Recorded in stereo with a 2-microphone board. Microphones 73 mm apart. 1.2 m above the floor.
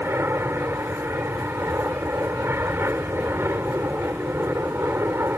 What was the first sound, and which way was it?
An aircraft, 30° right (ahead or behind).